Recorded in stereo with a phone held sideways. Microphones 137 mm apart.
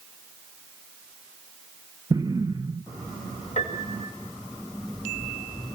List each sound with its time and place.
2.1 s an explosion: 30° right (ahead or behind), 0.8 m
3.6 s a piano: 60° left (ahead or behind), 4.5 m